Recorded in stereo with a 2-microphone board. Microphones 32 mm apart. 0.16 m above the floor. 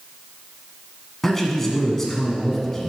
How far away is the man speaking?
About 1.5 m.